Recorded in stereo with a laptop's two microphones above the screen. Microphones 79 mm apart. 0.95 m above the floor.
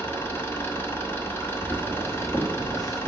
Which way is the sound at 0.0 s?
30° left (ahead or behind).